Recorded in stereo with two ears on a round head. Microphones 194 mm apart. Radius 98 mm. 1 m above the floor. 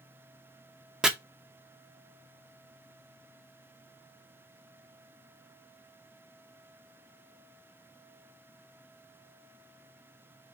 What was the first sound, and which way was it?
Chopping, 5° right (ahead or behind).